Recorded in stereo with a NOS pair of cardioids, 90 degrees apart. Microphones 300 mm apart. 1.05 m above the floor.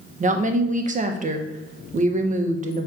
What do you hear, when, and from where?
0.2 s a woman speaking: 25° right, 0.5 m